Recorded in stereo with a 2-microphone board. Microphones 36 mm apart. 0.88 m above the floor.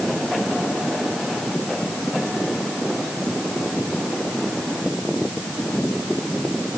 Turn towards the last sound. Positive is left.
No sound to turn to.